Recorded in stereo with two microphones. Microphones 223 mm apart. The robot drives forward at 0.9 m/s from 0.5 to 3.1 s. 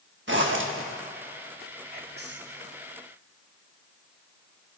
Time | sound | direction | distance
0.3 | a zipper | 60° right (ahead or behind) | 1.2 m
1.9 | whispering | 45° right (ahead or behind) | 1.6 m